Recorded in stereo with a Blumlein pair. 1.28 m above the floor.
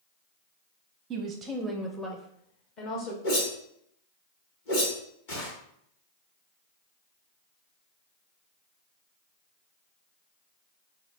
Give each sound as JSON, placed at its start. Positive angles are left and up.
{"t": 1.1, "sound": "a woman speaking", "azimuth_deg": -25, "distance_m": 0.6}
{"t": 3.2, "sound": "a whoosh", "azimuth_deg": 55, "distance_m": 2.0}